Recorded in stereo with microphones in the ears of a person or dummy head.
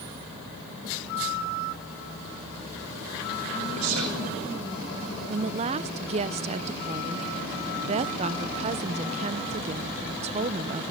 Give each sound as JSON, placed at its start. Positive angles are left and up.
{"t": 3.8, "sound": "a man speaking", "side_deg": -75, "distance_m": 2.0}
{"t": 5.3, "sound": "a woman speaking", "side_deg": -30, "distance_m": 0.6}